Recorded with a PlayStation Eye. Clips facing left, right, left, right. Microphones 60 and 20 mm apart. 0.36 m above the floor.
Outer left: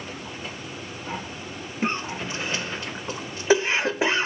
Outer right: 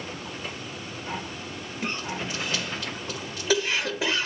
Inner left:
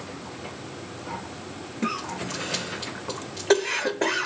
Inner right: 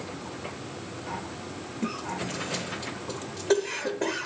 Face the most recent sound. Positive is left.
turn(degrees=30)  # may be behind; listen again after turning